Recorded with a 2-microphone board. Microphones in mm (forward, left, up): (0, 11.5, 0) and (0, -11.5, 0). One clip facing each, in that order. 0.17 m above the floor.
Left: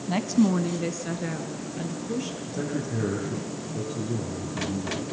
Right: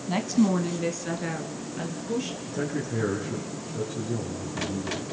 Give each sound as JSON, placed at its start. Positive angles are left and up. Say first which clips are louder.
{"t": 0.1, "sound": "a woman speaking", "louder": "left 1 dB", "side_deg": -5, "distance_m": 1.3}
{"t": 2.5, "sound": "a man speaking", "louder": "even", "side_deg": 0, "distance_m": 8.0}